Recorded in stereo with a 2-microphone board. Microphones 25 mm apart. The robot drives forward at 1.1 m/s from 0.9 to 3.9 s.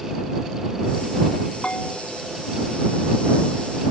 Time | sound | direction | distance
1.6 | a bell | 45° left (ahead or behind) | ?